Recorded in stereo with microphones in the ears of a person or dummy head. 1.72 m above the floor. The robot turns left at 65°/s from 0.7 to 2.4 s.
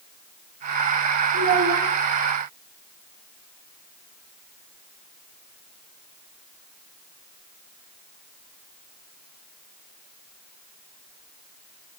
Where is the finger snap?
I don't hear a finger snap.